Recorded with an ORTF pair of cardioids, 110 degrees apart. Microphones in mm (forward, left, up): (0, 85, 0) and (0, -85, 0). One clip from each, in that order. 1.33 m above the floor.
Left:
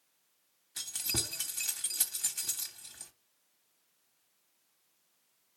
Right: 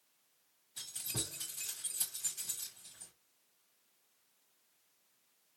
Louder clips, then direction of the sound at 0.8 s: Left 7 dB; 70° left.